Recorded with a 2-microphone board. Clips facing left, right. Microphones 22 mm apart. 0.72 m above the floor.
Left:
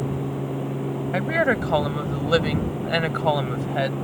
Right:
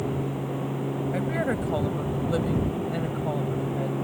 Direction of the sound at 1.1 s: 35° left (ahead or behind).